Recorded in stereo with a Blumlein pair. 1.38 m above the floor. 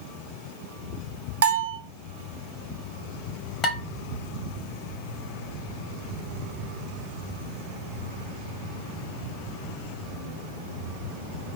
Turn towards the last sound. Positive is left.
turn(degrees=20)